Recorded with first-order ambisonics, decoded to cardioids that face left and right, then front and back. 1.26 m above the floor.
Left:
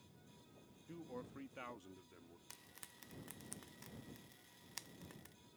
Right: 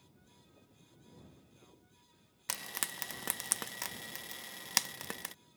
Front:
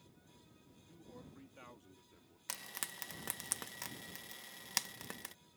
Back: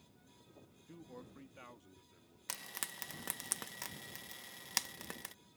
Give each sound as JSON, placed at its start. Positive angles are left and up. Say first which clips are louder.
{"t": 0.9, "sound": "a man speaking", "louder": "left 11 dB, back 3 dB", "azimuth_deg": 120}
{"t": 2.5, "sound": "frying", "louder": "right 22 dB, back 1 dB", "azimuth_deg": -95}